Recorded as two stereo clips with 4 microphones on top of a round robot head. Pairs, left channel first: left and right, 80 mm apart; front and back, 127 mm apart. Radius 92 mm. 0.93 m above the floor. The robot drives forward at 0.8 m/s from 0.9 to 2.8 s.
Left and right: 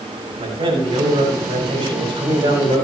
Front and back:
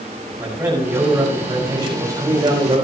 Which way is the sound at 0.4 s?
105° right.